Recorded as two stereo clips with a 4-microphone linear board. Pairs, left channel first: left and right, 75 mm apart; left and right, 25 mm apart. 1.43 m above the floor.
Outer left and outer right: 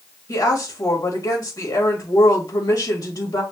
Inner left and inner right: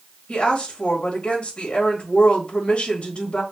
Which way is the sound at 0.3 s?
55° left (ahead or behind).